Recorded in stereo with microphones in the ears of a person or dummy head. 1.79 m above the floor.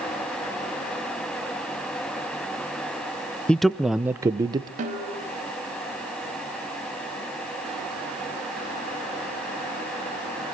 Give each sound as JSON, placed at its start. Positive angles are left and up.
{"t": 3.5, "sound": "a man speaking", "side_deg": 5, "distance_m": 0.9}
{"t": 4.8, "sound": "a snare drum", "side_deg": -40, "distance_m": 6.0}